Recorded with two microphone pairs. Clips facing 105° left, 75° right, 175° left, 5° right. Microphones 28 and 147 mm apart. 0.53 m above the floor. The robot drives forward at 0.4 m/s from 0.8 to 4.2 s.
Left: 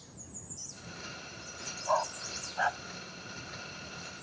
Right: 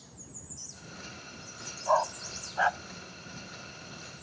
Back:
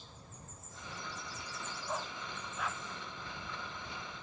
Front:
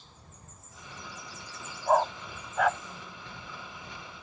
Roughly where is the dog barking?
Ahead.